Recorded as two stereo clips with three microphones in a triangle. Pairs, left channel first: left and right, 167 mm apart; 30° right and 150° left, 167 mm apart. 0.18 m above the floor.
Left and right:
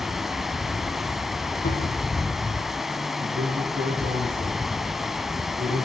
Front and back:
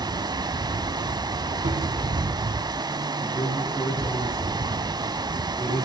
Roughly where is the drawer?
Left.